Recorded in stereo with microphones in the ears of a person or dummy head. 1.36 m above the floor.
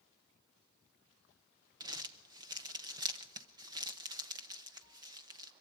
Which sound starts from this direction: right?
Crumpling, at 1.8 s.